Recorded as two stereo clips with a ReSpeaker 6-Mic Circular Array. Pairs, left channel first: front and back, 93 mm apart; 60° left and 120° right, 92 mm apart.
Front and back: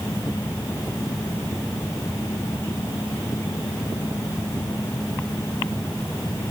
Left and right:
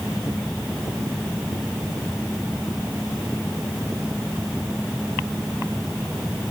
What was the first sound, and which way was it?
Only background noise.